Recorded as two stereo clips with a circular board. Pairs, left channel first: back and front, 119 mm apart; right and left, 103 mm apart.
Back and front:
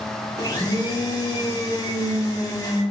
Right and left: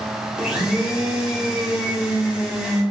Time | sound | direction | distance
0.4 | a blender | 170° left | 1.2 m